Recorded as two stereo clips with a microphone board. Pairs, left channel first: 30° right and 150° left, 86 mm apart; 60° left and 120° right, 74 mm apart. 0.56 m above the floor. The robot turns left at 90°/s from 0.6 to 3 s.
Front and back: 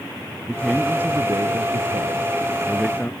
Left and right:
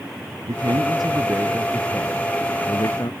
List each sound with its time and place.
0.5 s a man speaking: 105° right; by 3.1 s 40° left